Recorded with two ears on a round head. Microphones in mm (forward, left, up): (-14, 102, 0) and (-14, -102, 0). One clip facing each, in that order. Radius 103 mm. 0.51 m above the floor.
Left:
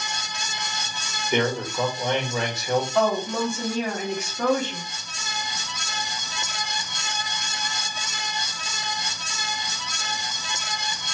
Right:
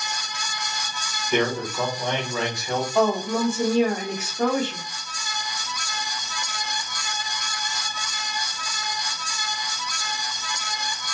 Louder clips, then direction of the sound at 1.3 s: Even; 5° left (ahead or behind).